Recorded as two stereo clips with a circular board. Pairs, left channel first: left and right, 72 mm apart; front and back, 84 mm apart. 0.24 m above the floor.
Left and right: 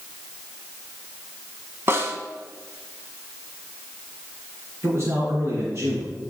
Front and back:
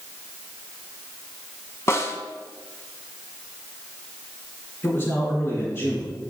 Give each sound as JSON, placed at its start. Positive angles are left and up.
{"t": 1.9, "sound": "a snare drum", "azimuth_deg": -45, "distance_m": 0.9}
{"t": 4.8, "sound": "a man speaking", "azimuth_deg": -55, "distance_m": 2.5}